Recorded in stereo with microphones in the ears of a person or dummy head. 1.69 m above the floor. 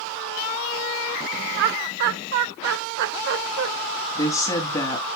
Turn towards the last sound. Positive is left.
turn(degrees=20)  # may be behind; listen again after turning